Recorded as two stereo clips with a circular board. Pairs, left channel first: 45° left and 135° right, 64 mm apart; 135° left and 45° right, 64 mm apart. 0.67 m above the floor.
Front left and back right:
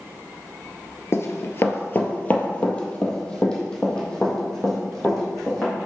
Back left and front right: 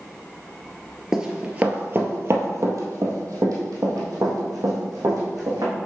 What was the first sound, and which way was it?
Running footsteps, 35° left.